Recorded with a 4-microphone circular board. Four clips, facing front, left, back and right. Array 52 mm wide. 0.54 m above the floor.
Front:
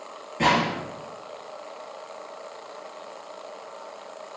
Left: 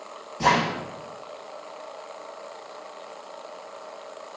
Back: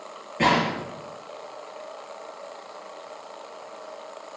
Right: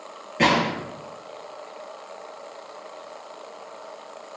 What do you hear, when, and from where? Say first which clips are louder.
0.4 s a gunshot: right 1 dB, even; 95° right, 5.5 m